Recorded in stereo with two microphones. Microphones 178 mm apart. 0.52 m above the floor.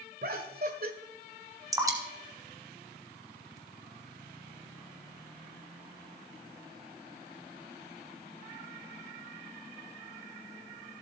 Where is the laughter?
60° right (ahead or behind), 1.3 m.